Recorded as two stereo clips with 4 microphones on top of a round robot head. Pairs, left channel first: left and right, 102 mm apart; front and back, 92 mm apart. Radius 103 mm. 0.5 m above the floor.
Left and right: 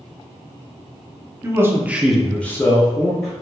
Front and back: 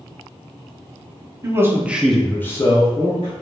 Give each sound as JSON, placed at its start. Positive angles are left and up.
{"t": 1.4, "sound": "a man speaking", "azimuth_deg": -140, "distance_m": 0.8}